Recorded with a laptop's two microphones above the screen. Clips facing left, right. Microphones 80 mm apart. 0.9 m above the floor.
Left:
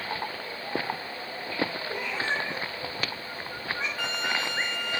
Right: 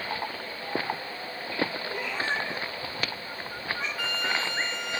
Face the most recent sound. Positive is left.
turn(degrees=25)  # may be behind; listen again after turning